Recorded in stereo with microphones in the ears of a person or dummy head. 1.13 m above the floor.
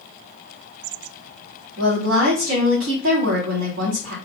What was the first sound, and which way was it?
A woman speaking, 80° right.